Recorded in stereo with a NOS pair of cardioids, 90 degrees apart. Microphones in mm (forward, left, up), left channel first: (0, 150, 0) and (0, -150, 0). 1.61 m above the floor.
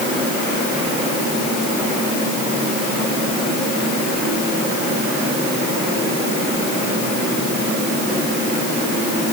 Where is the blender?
No blender in this recording.